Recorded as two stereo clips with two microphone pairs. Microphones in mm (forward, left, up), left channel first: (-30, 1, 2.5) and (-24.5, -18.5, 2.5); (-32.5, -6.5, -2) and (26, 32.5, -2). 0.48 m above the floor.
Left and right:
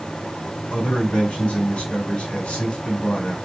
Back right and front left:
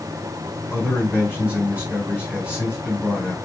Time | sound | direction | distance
0.7 | a man speaking | 110° left | 4 m